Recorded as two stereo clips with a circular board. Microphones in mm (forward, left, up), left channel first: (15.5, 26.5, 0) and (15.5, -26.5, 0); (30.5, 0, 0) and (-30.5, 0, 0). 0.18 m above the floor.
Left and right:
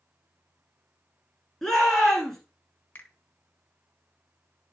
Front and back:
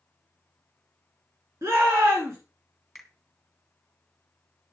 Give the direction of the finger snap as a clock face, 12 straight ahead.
9 o'clock.